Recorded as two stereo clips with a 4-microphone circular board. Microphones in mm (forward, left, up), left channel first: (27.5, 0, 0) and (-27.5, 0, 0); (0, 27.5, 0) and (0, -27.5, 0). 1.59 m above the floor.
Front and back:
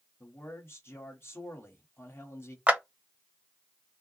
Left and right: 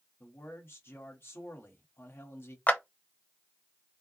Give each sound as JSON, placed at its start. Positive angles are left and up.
{"t": 0.2, "sound": "a man speaking", "azimuth_deg": 40, "distance_m": 1.4}
{"t": 2.7, "sound": "a clap", "azimuth_deg": 130, "distance_m": 0.8}